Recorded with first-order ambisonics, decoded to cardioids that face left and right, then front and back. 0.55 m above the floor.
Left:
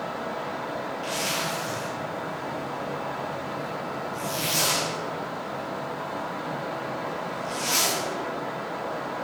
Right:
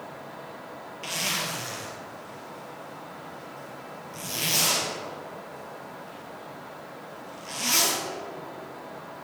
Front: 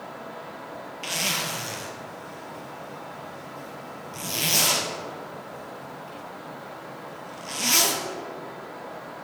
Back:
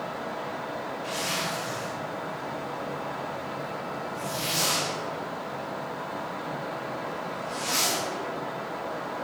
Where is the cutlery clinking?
No cutlery clinking in this recording.